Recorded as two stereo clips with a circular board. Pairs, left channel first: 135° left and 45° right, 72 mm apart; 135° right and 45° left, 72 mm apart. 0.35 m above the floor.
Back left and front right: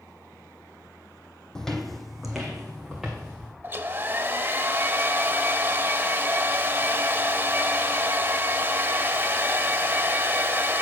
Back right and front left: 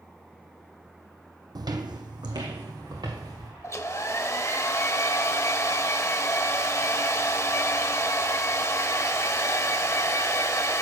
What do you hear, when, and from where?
1.6 s footsteps: 50° left, 0.8 m; by 3.5 s 35° left, 2.5 m
3.6 s a hair dryer: 95° right, 0.6 m